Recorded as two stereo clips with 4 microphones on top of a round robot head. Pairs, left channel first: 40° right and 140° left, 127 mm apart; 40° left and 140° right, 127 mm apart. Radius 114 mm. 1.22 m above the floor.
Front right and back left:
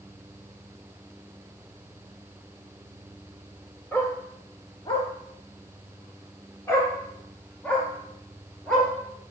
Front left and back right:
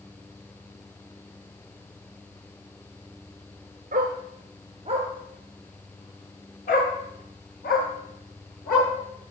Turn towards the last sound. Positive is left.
turn(degrees=45)